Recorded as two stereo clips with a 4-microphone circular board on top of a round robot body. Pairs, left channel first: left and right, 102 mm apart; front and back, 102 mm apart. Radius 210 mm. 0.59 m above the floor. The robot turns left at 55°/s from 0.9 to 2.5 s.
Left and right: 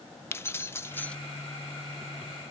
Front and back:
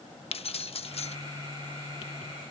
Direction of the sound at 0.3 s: 25° left.